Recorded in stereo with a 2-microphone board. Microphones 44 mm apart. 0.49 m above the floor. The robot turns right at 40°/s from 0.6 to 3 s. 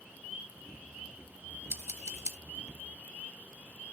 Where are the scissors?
80° right, 0.8 m; by 2.4 s 70° right (ahead or behind), 0.8 m.